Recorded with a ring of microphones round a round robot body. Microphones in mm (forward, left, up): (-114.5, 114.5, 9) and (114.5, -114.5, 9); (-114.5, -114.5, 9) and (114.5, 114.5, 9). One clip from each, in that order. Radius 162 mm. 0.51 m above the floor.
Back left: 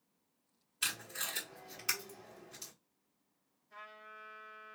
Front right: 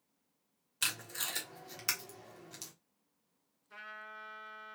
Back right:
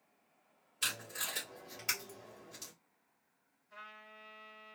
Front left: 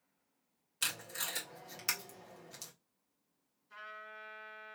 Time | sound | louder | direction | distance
0.8 | tape being pulled | front right 1 dB, even | straight ahead | 1.5 m
3.7 | a trumpet | front right 4 dB, front left 4 dB | straight ahead | 2.0 m